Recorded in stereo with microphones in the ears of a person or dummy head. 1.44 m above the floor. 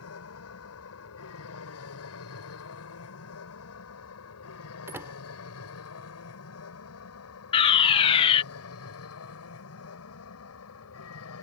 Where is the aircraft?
80° left.